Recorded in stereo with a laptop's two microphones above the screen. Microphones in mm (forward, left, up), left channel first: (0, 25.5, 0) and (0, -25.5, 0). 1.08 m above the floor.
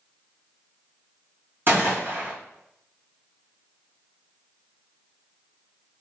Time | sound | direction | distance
1.7 | a gunshot | 45° right (ahead or behind) | 1.0 m